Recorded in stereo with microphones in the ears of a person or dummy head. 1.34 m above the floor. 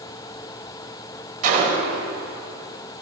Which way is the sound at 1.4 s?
45° right (ahead or behind).